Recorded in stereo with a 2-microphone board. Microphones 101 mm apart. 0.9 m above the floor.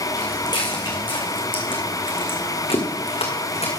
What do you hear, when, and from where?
0.1 s footsteps: 40° left (ahead or behind), 3.5 m; by 3.7 s 75° left (ahead or behind), 4 m